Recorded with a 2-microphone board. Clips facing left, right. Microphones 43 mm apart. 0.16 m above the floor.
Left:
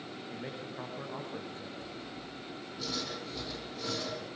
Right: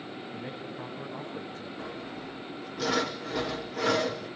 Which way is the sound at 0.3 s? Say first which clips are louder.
Right 1 dB; 20° left (ahead or behind).